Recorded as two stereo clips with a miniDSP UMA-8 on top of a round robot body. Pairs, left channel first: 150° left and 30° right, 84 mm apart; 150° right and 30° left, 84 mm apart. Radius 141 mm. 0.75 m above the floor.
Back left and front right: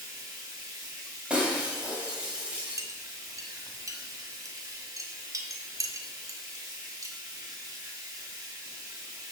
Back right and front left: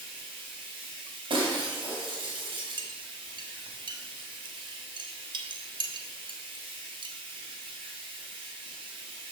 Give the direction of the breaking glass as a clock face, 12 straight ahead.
10 o'clock.